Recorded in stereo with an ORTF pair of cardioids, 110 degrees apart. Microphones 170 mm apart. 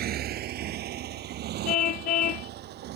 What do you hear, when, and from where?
0.0 s a motorcycle: 65° right; by 3.0 s 70° right
1.6 s a car horn: 60° left